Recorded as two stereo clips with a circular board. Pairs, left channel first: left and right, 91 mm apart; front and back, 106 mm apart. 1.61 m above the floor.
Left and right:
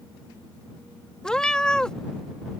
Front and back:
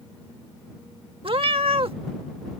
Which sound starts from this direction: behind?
A cat meowing, at 1.2 s.